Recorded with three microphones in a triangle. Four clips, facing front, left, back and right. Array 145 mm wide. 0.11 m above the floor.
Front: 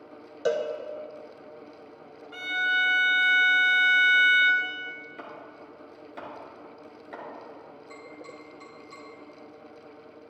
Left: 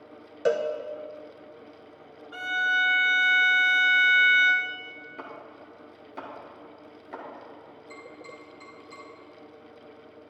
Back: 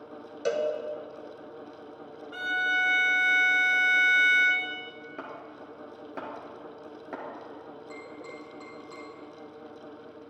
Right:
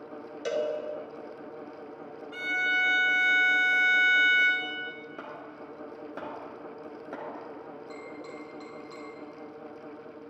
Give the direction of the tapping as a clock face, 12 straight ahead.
5 o'clock.